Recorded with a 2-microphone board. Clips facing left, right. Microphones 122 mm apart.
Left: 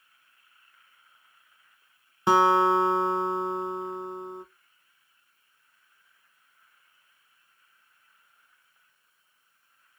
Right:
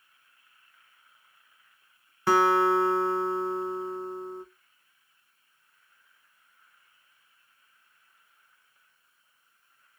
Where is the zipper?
No zipper in this recording.